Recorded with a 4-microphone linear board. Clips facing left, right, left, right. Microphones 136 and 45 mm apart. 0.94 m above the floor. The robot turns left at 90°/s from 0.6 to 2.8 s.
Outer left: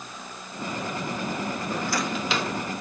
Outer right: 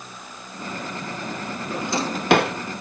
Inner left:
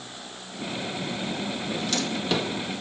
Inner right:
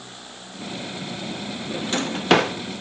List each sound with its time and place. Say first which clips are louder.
1.7 s a drawer: outer right 5 dB, inner right 4 dB; 5° right (ahead or behind), 0.6 m; by 2.5 s 80° right, 0.6 m